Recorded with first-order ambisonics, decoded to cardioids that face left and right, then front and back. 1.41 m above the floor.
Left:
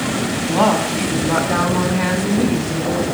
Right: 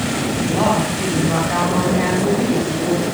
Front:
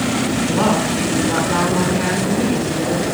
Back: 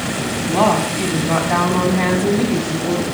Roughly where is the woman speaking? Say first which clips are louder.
Left 3 dB, back 4 dB; behind.